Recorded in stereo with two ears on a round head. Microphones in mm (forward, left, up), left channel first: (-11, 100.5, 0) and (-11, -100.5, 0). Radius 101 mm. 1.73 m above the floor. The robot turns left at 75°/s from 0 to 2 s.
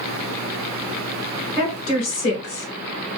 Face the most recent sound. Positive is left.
turn(degrees=120)